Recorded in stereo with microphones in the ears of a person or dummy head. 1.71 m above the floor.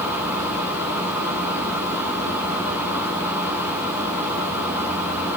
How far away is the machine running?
About 5 m.